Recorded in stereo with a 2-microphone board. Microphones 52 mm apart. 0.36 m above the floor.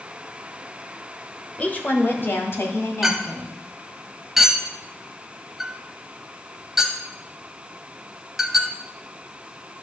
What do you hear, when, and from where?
1.6 s a woman speaking: 30° left (ahead or behind), 1.1 m; by 3.5 s 60° left (ahead or behind), 2.5 m
3.0 s a clink: 5° right (ahead or behind), 1.1 m